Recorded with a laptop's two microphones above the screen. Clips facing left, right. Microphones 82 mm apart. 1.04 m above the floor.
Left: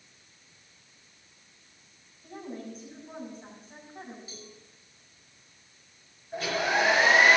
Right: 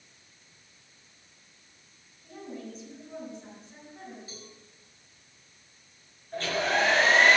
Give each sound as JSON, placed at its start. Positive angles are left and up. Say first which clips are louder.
{"t": 2.2, "sound": "a woman speaking", "louder": "left 1 dB", "side_deg": 50, "distance_m": 6.0}
{"t": 4.3, "sound": "a cowbell", "louder": "even", "side_deg": -45, "distance_m": 5.5}
{"t": 6.3, "sound": "a hair dryer", "louder": "even", "side_deg": 10, "distance_m": 3.5}